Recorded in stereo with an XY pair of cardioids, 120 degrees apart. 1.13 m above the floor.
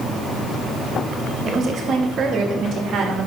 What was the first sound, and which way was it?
A woman speaking, 35° right.